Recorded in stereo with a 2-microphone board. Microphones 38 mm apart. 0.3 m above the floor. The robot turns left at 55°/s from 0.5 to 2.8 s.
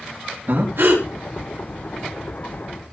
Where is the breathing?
60° right (ahead or behind), 5.5 m; by 1.0 s 75° right (ahead or behind), 5.5 m.